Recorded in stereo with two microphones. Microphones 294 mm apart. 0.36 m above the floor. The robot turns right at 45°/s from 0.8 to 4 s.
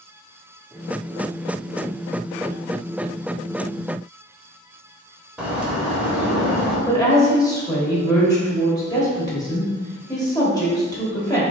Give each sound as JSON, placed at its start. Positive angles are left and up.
{"t": 5.4, "sound": "a bird", "side_deg": -5, "distance_m": 0.9}
{"t": 6.9, "sound": "a woman speaking", "side_deg": 15, "distance_m": 1.2}